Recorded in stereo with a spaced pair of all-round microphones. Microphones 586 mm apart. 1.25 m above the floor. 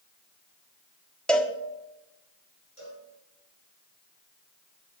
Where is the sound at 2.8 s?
60° left (ahead or behind), 6 m.